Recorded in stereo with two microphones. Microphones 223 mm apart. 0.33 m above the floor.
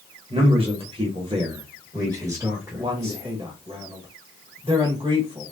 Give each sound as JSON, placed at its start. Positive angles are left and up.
{"t": 0.3, "sound": "a man speaking", "side_deg": -25, "distance_m": 1.3}
{"t": 2.8, "sound": "a man speaking", "side_deg": -25, "distance_m": 1.2}